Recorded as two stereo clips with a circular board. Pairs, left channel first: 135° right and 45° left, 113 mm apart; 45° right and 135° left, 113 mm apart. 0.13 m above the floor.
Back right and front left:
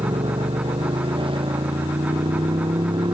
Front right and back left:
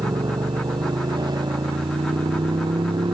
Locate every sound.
0.0 s a motorcycle: 85° left; by 3.1 s 90° left